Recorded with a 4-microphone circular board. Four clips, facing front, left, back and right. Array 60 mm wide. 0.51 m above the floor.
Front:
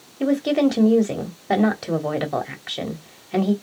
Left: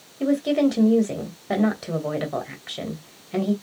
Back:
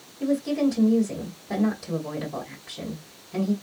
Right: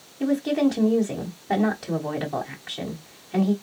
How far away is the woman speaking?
About 2 m.